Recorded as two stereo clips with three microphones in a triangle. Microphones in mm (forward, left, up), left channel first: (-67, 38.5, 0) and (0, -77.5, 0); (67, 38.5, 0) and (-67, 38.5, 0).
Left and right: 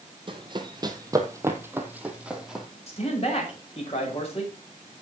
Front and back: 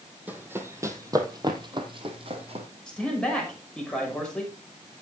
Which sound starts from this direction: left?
A man speaking, at 2.9 s.